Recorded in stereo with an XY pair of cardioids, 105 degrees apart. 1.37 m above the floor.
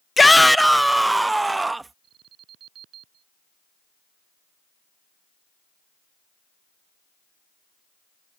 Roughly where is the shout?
Ahead.